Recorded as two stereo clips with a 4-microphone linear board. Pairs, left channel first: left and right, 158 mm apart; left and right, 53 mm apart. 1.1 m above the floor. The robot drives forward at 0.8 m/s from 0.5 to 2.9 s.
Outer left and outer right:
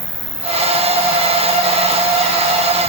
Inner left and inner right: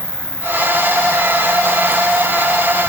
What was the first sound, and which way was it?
An insect, 85° right.